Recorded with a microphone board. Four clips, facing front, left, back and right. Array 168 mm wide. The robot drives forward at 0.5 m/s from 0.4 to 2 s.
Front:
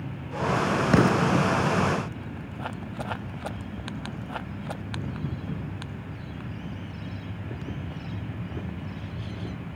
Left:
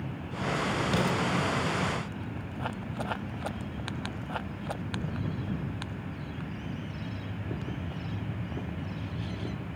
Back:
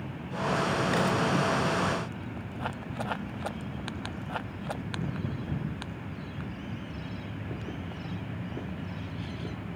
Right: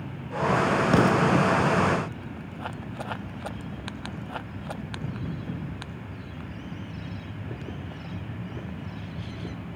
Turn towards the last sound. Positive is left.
turn(degrees=-40)